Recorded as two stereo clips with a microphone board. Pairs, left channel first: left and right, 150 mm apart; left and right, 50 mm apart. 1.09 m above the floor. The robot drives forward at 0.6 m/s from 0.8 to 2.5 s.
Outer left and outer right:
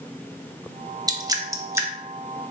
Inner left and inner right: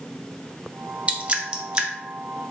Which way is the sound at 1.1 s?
25° right (ahead or behind).